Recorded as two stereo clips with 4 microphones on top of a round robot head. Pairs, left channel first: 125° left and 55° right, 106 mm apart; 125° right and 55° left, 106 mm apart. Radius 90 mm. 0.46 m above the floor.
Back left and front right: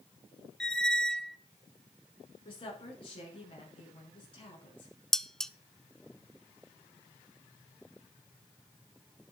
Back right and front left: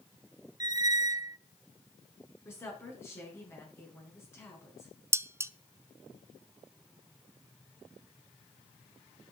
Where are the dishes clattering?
50° left, 0.6 m.